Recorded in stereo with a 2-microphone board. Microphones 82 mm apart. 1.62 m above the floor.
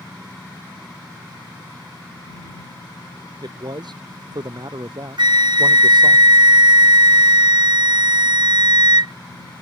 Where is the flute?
65° right (ahead or behind).